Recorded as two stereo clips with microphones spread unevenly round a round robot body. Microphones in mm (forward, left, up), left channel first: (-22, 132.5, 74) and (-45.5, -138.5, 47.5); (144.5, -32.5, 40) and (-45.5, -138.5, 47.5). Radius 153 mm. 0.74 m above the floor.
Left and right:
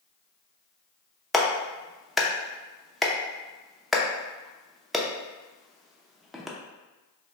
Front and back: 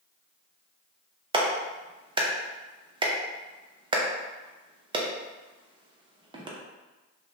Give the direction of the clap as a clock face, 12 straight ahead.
6 o'clock.